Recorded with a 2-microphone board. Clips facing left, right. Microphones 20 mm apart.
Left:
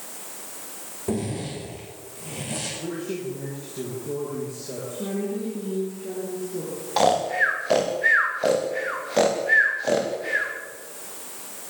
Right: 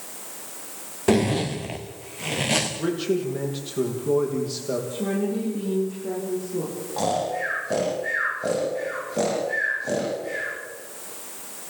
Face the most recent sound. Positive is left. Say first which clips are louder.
# left 5 dB
turn(degrees=65)  # may be behind; listen again after turning